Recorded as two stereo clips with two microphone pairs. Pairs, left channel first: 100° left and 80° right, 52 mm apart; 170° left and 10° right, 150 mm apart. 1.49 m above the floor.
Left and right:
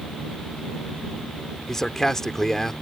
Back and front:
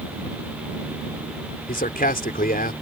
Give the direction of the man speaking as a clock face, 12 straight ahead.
6 o'clock.